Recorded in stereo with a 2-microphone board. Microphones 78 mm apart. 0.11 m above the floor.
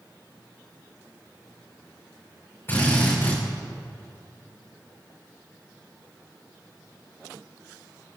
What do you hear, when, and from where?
2.7 s a drill: 35° left (ahead or behind), 6 m